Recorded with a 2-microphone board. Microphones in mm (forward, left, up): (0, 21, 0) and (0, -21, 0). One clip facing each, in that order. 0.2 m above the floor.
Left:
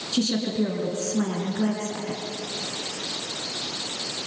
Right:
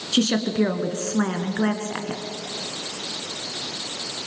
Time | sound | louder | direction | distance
0.1 | a woman speaking | right 4 dB | 60° right (ahead or behind) | 3 m